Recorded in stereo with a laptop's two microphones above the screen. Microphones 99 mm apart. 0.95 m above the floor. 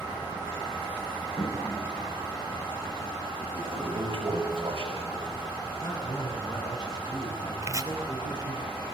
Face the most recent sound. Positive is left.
turn(degrees=-30)  # may be behind; listen again after turning